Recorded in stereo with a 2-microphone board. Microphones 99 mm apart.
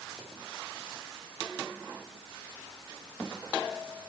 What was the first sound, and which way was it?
Only background noise.